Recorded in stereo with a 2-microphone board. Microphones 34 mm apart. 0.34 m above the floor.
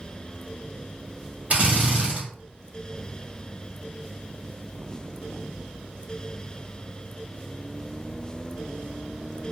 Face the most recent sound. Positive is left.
turn(degrees=-50)  # may be behind; listen again after turning